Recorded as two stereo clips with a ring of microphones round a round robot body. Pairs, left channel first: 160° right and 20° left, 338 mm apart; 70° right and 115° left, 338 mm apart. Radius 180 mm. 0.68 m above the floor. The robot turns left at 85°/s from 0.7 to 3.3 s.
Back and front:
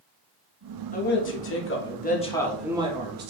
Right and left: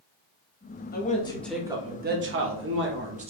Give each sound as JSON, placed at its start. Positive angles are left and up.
{"t": 0.9, "sound": "a man speaking", "azimuth_deg": -105, "distance_m": 0.9}